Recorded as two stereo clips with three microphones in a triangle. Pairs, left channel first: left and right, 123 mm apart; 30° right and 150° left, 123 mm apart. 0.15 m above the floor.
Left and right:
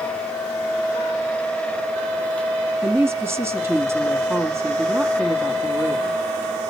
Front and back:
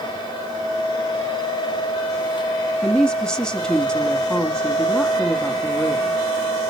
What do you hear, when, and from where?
2.8 s a woman speaking: 100° right, 1.1 m